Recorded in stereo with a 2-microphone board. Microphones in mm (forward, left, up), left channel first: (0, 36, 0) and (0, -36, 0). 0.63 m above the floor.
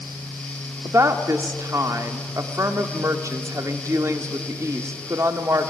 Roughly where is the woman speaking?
Right.